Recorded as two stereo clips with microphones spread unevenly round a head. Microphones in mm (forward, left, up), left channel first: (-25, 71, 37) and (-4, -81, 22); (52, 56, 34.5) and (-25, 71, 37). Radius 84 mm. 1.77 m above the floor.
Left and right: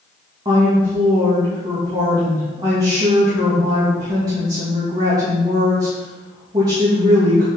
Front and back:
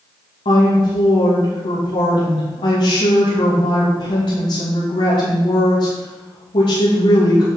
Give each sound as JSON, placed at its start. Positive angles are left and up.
{"t": 0.5, "sound": "a woman speaking", "azimuth_deg": -15, "distance_m": 3.0}